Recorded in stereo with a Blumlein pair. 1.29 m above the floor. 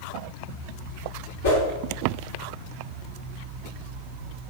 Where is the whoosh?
55° left, 1.3 m.